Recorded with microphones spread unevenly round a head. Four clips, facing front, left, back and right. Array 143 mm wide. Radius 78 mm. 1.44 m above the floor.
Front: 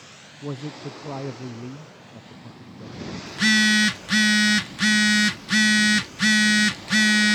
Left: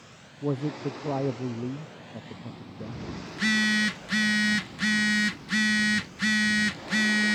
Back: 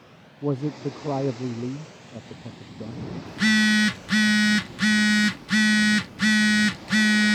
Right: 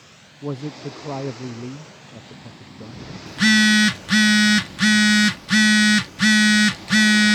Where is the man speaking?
170° left.